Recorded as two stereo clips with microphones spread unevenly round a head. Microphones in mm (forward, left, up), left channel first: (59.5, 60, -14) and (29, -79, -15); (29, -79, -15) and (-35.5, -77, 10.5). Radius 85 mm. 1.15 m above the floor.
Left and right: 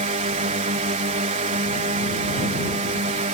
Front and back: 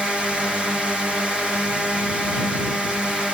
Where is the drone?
90° right.